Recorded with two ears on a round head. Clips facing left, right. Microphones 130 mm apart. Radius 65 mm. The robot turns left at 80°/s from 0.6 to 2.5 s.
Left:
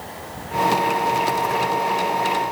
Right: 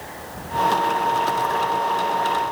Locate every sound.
Only background noise.